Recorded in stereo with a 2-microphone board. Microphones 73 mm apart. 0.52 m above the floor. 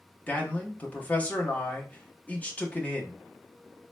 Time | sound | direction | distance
0.3 | a man speaking | 20° left (ahead or behind) | 0.9 m